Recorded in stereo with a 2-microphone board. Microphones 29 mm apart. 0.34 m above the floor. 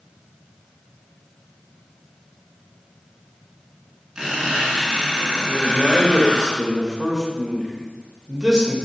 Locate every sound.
4.2 s a squeak: 30° right (ahead or behind), 1.9 m
5.5 s a man speaking: 20° right (ahead or behind), 0.9 m